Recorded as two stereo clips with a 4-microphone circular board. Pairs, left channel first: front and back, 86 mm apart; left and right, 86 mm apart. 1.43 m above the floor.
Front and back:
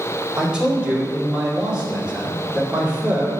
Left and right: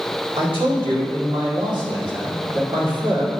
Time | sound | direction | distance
0.4 | a man speaking | 100° right | 3.5 m